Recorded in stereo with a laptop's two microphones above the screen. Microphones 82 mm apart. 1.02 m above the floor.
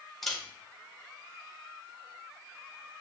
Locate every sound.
0.2 s a camera shutter: centre (ahead or behind), 1.3 m